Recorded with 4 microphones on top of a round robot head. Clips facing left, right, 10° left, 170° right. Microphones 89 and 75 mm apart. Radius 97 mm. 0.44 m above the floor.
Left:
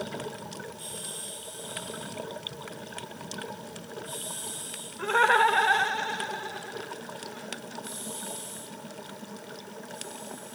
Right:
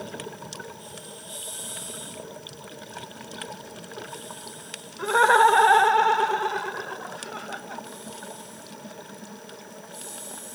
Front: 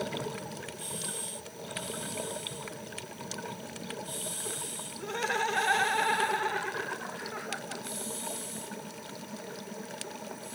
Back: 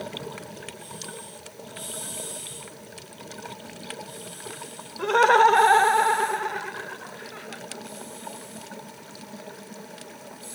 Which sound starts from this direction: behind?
Laughter, at 5.0 s.